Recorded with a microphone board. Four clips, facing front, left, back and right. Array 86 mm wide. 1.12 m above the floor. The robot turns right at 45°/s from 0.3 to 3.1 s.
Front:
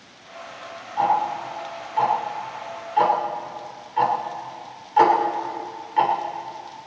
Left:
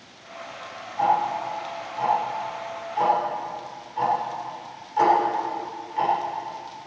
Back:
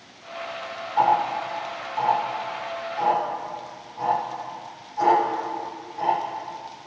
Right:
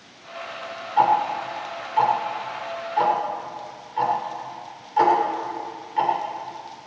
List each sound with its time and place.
1.0 s ticking: 115° right, 3 m; by 6.1 s 15° right, 3 m